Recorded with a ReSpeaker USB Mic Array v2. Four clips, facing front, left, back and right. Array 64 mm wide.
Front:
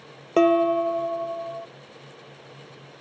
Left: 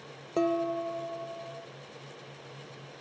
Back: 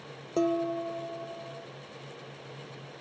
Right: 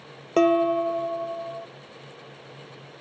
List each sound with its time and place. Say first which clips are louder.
0.4 s dishes clattering: right 9 dB, front 10 dB; 30° right